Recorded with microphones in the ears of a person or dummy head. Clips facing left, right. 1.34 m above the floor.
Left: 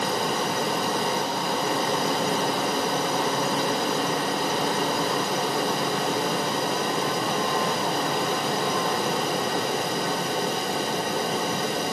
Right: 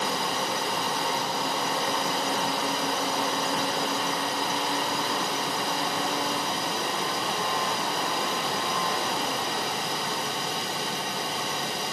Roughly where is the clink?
I don't hear a clink.